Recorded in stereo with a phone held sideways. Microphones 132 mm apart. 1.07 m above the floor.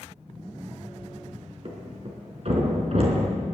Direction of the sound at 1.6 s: 50° right (ahead or behind).